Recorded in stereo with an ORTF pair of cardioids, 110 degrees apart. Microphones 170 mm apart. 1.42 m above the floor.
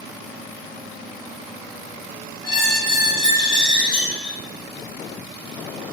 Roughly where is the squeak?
Ahead left.